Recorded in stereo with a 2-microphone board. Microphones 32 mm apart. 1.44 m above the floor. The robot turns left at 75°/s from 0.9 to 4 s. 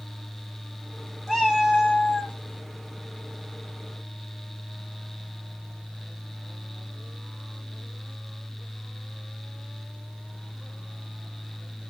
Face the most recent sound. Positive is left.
turn(degrees=-20)